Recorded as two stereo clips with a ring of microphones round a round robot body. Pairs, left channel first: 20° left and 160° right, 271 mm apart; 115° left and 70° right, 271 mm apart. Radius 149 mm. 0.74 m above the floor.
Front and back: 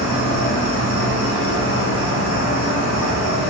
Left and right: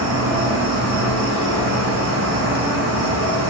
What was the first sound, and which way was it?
An insect, 25° right.